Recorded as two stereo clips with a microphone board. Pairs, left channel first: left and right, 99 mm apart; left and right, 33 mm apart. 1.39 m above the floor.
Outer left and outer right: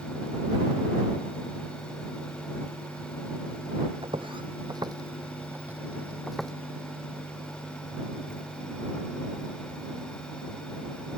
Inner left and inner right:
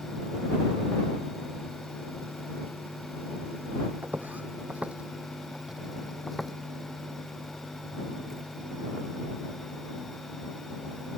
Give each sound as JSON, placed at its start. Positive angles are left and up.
{"t": 4.0, "sound": "footsteps", "side_deg": -60}